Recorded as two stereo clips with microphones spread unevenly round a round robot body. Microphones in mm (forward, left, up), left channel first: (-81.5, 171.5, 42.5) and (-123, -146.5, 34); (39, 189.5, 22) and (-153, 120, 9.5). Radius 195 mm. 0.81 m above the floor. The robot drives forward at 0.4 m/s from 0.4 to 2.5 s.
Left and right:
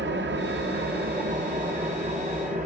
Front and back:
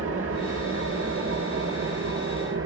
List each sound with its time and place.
0.0 s an engine running: 155° right, 1.1 m; by 2.7 s 165° right, 1.9 m